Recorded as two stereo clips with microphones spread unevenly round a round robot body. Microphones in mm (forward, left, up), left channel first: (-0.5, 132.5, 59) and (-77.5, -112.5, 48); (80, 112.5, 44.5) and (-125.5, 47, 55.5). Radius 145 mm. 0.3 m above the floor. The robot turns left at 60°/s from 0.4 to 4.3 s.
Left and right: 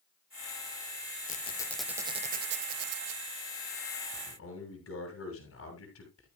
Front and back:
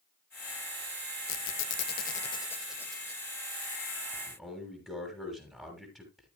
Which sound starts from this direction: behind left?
A man speaking, at 4.1 s.